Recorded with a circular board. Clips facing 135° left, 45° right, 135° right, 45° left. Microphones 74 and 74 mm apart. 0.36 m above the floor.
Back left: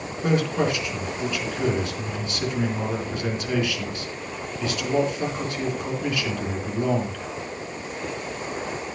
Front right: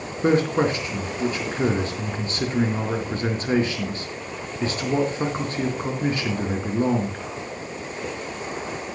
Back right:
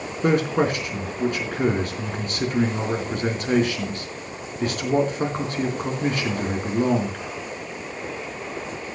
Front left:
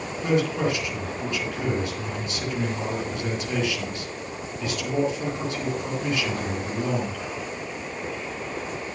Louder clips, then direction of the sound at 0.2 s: Front right 3 dB, back right 3 dB; 95° right.